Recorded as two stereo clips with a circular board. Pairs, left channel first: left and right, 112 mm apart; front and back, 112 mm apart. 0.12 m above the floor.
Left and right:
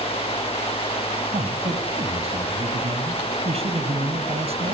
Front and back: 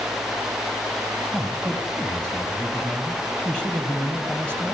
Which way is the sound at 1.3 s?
80° right.